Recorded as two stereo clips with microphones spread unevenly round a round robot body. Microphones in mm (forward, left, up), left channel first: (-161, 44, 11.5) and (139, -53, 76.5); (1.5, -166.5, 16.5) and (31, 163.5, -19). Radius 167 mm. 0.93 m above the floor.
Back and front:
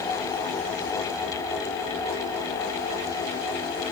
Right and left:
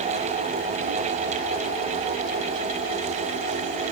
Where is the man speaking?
I don't hear a man speaking.